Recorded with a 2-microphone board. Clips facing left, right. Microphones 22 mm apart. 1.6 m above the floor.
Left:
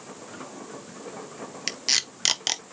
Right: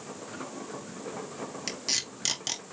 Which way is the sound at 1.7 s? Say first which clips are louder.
Left 7 dB; 35° left (ahead or behind).